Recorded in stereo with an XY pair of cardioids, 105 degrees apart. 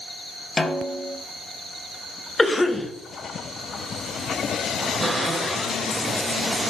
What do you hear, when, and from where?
0.6 s a snare drum: 25° left, 0.6 m
2.4 s a cough: 25° left, 0.6 m
5.0 s a cupboard door: 35° right, 0.9 m